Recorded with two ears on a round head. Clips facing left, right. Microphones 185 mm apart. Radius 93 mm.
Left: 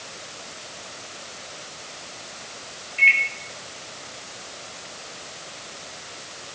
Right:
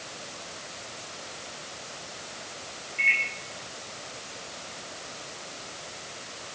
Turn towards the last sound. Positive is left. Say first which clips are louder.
# left 7 dB
turn(degrees=45)  # may be behind; listen again after turning